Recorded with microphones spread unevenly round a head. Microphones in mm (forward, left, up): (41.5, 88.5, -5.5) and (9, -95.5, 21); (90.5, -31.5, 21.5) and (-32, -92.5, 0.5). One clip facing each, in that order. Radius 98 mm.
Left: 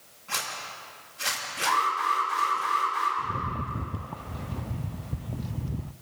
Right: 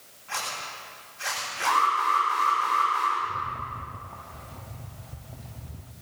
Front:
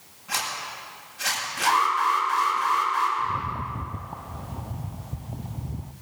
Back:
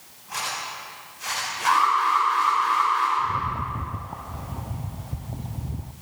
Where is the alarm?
5° right, 9 m.